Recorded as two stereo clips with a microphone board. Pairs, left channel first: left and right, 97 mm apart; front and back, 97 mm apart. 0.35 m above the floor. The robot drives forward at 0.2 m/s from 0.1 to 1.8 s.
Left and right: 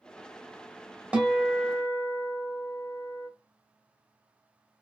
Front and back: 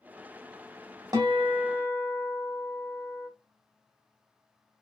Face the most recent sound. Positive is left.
turn(degrees=-165)